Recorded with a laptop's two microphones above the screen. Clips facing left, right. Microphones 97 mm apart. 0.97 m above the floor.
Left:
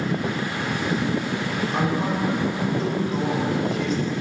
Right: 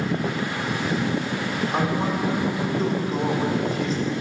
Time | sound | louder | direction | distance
1.7 | a man speaking | even | 40° right (ahead or behind) | 3.5 m